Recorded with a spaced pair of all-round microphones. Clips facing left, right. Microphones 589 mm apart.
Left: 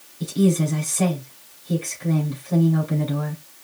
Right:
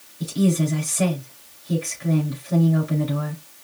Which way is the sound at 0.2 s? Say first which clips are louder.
Left 1 dB; 5° right (ahead or behind).